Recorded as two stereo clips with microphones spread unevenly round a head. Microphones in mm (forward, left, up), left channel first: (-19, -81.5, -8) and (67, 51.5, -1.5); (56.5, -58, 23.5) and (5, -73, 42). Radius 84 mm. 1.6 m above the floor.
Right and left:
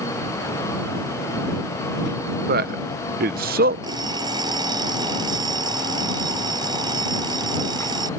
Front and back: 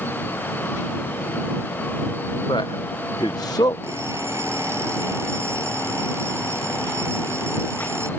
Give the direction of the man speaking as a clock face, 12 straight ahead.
9 o'clock.